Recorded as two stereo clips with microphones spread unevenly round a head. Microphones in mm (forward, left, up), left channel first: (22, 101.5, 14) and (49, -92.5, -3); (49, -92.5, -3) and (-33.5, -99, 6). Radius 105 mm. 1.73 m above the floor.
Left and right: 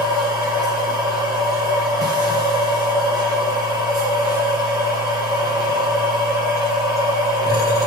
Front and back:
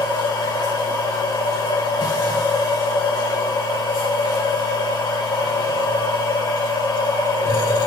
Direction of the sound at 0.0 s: 10° right.